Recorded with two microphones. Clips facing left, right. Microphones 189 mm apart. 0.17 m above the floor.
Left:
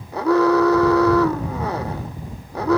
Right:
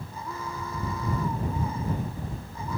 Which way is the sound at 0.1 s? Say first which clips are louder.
Left 24 dB; 80° left.